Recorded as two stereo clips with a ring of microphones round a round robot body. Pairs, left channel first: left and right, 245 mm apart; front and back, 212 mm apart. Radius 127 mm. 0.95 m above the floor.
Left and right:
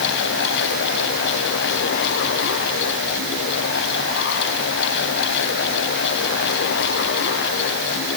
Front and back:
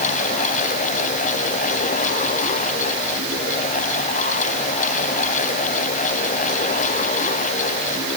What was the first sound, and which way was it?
Only background noise.